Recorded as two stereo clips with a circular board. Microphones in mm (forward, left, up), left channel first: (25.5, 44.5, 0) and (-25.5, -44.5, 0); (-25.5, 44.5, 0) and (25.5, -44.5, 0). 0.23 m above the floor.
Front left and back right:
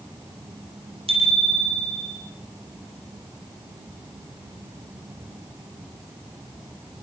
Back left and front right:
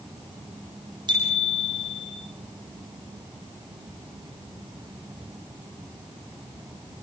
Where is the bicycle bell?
100° right, 7 m.